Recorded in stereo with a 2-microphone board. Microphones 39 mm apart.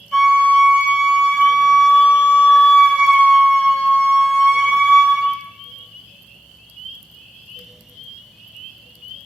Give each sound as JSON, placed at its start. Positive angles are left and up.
{"t": 0.1, "sound": "a flute", "side_deg": 20, "distance_m": 1.3}